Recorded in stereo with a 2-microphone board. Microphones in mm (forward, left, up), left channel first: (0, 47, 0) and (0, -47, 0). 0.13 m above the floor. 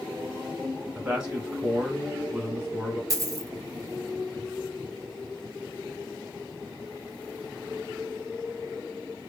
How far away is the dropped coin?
About 0.5 m.